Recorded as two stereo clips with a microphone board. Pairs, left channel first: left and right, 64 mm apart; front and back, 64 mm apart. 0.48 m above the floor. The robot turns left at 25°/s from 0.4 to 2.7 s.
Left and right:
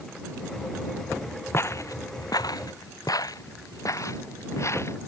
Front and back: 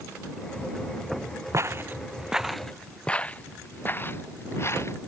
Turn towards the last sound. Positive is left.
turn(degrees=45)